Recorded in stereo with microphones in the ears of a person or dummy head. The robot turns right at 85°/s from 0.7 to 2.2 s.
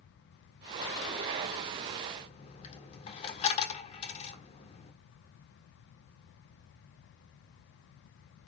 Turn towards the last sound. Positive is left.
turn(degrees=35)  # may be behind; listen again after turning